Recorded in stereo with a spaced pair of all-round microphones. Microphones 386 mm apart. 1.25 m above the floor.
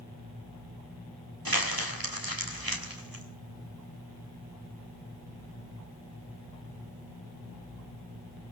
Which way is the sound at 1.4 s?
65° right (ahead or behind).